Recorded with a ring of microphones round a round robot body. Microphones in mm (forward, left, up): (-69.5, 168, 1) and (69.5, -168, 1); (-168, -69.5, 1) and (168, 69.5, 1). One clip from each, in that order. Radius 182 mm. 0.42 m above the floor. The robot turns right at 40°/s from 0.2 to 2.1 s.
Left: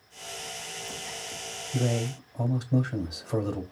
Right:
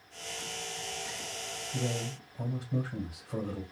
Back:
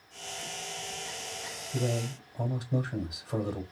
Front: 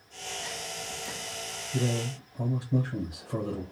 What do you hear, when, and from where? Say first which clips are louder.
1.7 s a man speaking: left 8 dB, front 1 dB; 135° left, 1.6 m; by 3.6 s 150° left, 1.6 m